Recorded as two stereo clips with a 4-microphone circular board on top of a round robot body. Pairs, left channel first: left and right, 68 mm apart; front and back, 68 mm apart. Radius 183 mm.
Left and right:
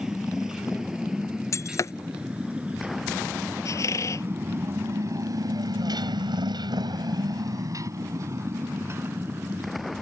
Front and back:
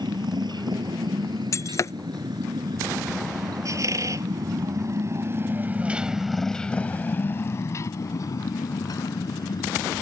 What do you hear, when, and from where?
0.0 s a motorcycle: 170° right; by 10.0 s 25° right
1.5 s breaking glass: 45° left
3.6 s a squeak: 135° left